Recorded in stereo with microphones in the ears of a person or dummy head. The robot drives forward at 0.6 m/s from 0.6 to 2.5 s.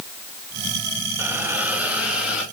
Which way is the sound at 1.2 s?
15° right (ahead or behind).